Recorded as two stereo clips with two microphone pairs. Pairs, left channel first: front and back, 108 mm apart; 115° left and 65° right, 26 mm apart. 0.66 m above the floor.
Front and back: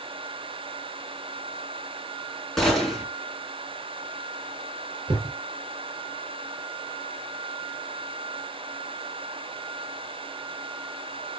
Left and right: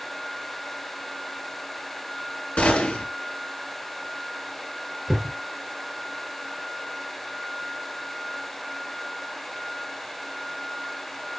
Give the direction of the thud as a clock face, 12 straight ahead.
5 o'clock.